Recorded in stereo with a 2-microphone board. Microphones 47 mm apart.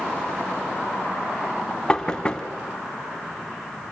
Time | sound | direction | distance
1.9 | knocking | 20° left (ahead or behind) | 1.2 m